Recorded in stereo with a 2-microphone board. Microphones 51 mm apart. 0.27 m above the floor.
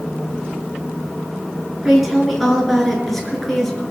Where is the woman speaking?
5° right (ahead or behind), 4 m; by 3.8 s 5° left (ahead or behind), 5 m.